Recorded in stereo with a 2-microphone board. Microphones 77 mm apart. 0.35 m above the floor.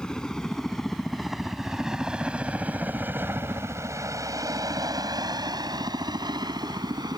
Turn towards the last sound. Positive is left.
turn(degrees=-60)  # may be behind; listen again after turning